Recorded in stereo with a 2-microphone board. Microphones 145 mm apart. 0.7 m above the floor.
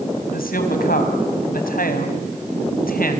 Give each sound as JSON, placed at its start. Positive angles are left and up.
{"t": 0.3, "sound": "a woman speaking", "side_deg": 85, "distance_m": 4.0}